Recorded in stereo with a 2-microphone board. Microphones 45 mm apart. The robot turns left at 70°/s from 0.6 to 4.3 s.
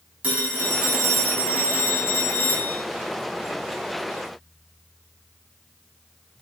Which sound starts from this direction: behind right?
A phone ringing, at 0.2 s.